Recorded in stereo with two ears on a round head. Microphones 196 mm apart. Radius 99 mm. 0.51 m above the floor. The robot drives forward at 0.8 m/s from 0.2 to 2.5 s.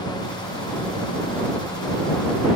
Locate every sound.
Only background noise.